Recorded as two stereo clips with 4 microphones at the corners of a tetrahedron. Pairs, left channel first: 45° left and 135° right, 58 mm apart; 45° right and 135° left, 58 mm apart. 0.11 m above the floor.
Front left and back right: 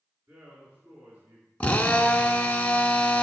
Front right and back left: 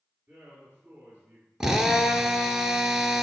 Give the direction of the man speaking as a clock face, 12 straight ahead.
6 o'clock.